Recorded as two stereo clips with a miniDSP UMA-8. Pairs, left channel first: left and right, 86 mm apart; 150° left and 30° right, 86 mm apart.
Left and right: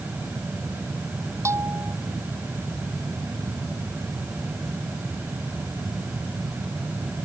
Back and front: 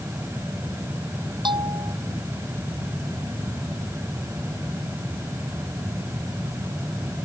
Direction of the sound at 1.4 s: 40° right.